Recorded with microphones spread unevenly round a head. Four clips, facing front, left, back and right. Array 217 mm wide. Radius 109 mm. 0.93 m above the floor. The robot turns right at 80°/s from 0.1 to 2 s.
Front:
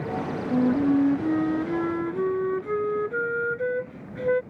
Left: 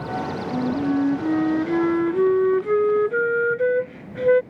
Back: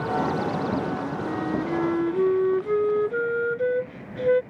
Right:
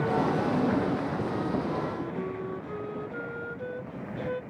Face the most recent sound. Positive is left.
turn(degrees=125)